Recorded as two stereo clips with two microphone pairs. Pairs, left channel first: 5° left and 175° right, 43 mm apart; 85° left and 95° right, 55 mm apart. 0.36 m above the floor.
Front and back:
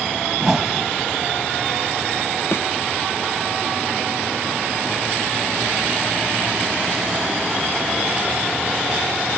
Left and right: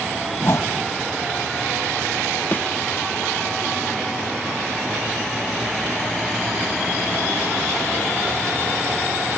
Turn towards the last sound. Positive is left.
turn(degrees=30)